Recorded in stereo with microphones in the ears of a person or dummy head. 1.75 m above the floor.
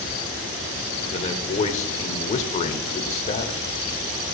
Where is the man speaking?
35° left (ahead or behind), 0.8 m.